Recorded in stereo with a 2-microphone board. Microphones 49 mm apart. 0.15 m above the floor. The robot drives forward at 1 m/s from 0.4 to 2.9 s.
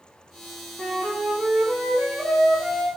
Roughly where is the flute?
Centre.